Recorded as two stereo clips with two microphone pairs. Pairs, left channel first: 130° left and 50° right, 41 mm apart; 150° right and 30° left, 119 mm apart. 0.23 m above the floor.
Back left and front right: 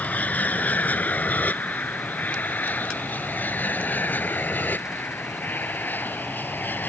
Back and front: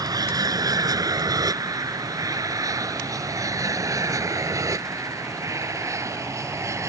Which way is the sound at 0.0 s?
85° left.